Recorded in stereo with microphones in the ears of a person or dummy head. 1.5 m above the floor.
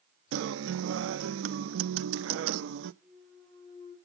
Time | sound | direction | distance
0.3 | a guitar | 75° right (ahead or behind) | 0.6 m
3.0 | a clunk | 10° left (ahead or behind) | 8.5 m